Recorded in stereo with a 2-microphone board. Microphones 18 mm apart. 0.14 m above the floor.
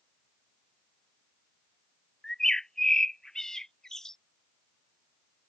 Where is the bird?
25° left (ahead or behind).